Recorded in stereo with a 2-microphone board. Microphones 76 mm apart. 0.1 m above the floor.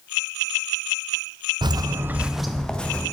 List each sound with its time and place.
1.6 s footsteps: 75° right (ahead or behind), 0.7 m; by 3.0 s 15° left (ahead or behind), 1.8 m